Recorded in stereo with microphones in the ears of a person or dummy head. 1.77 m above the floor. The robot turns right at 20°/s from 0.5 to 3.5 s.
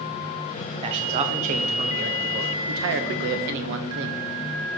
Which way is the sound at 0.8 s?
145° right.